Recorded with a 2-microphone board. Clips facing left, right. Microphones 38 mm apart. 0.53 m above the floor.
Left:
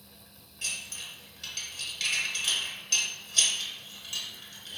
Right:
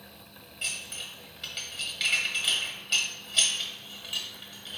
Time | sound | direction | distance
0.6 | dishes clattering | 25° right (ahead or behind) | 1.3 m